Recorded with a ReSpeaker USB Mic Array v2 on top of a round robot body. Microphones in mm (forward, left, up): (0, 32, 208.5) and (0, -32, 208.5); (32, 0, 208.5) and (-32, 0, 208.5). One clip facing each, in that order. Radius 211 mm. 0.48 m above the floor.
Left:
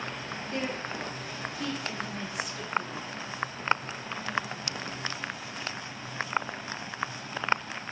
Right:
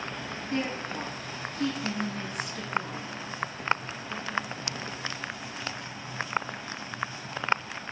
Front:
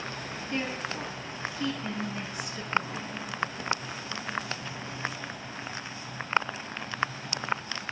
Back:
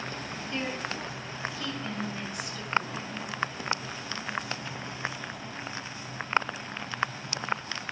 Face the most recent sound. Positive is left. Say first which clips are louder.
# right 2 dB, front 1 dB
turn(degrees=-55)